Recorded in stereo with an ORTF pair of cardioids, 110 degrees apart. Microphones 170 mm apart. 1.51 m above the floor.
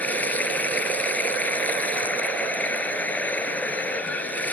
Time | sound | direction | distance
0.0 | running water | 10° left | ?